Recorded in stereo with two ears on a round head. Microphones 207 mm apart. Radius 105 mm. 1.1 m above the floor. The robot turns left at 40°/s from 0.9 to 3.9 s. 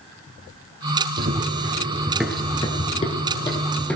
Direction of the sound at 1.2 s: 40° right (ahead or behind).